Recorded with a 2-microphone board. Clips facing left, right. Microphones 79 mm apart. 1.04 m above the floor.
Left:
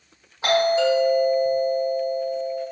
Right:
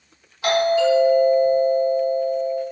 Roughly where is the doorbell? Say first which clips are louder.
Right 1 dB; left.